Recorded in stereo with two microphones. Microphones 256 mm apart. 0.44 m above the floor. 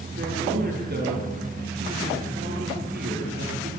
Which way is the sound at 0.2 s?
40° right (ahead or behind).